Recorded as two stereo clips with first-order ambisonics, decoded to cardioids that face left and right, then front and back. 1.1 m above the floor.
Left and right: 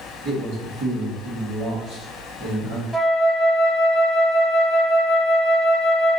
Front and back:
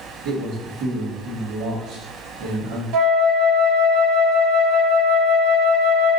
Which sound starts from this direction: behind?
A flute, at 2.9 s.